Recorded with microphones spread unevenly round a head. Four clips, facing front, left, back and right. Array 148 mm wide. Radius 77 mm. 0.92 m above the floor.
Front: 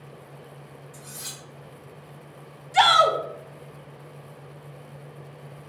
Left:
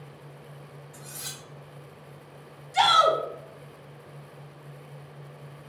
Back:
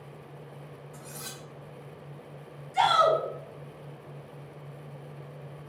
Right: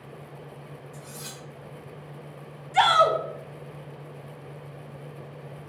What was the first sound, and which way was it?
Cutlery clinking, 145° right.